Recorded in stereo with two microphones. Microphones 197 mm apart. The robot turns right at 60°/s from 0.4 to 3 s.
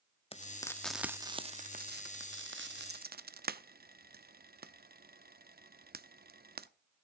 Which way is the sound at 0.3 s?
30° left (ahead or behind).